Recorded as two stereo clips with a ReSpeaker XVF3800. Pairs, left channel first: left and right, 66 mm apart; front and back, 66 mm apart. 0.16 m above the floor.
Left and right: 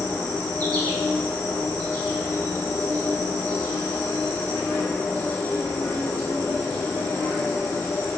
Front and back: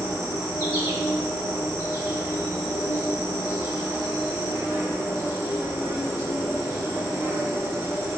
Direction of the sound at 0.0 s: 135° left.